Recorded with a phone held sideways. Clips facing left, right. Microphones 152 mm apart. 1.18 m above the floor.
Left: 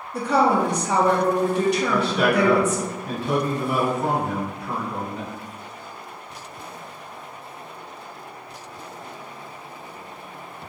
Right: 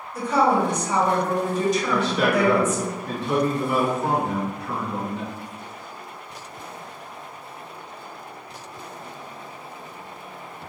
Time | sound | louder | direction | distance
0.1 | a woman speaking | left 1 dB | 70° left (ahead or behind) | 0.8 m
1.9 | a man speaking | left 1 dB | 55° left (ahead or behind) | 1.0 m